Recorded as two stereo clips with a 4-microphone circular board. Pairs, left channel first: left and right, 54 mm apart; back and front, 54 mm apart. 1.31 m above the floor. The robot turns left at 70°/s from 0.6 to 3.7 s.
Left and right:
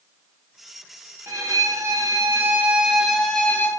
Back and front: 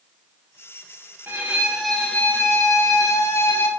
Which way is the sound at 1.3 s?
55° right.